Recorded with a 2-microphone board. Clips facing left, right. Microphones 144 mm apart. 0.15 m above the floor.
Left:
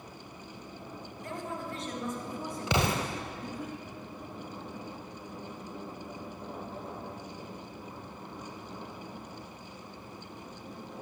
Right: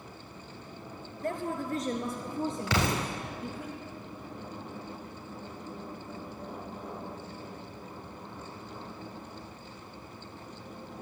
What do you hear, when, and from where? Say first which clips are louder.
1.2 s a woman speaking: right 6 dB; 55° right (ahead or behind), 2.5 m; by 3.7 s 5° left (ahead or behind), 3 m
2.7 s an explosion: left 3 dB; 20° left (ahead or behind), 4 m